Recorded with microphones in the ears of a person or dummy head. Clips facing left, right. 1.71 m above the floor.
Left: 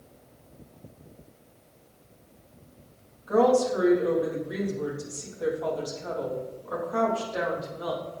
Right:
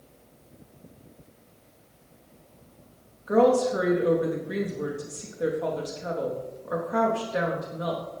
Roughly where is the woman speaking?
Right.